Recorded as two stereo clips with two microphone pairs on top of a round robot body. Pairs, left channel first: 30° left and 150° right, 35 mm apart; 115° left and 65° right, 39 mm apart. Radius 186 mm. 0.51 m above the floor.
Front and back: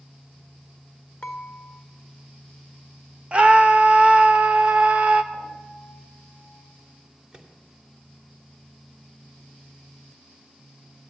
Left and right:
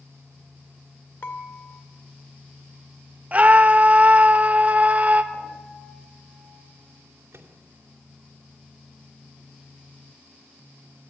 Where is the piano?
130° right, 5.5 m.